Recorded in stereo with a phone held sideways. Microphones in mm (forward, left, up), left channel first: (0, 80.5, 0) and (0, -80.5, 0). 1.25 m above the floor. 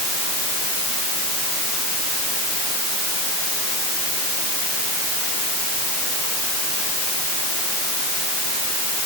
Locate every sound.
Only background noise.